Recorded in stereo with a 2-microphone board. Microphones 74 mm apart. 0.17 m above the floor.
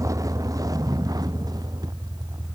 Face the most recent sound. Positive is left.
turn(degrees=-60)  # may be behind; listen again after turning